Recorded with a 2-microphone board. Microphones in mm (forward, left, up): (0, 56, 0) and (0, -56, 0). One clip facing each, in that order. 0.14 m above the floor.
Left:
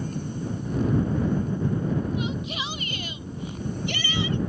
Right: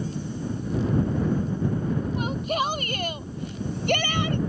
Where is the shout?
45° right (ahead or behind); by 4.4 s 55° right (ahead or behind).